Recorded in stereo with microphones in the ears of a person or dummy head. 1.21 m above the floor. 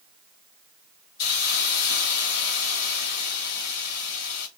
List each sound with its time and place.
1.2 s a hiss: 65° left (ahead or behind), 1.9 m